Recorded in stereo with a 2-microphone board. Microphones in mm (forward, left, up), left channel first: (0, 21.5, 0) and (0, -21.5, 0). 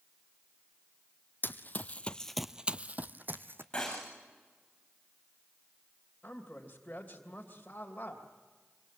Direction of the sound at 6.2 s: 35° left (ahead or behind).